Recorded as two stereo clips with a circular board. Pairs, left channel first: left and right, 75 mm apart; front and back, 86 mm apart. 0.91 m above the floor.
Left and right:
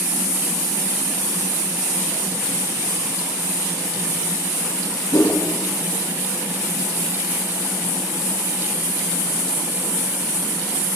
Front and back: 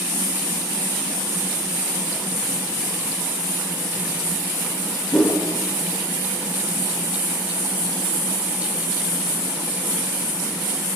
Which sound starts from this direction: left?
A whoosh, at 5.1 s.